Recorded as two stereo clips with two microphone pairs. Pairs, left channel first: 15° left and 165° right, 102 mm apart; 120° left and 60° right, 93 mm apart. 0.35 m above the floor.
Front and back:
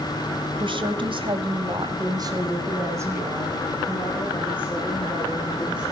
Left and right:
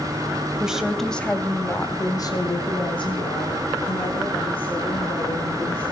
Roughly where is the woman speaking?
Behind right.